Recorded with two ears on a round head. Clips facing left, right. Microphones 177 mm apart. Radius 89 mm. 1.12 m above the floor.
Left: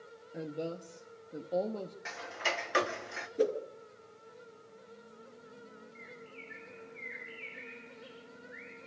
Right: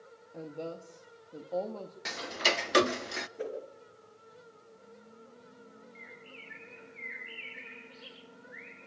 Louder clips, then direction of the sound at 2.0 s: Right 9 dB; 50° right (ahead or behind).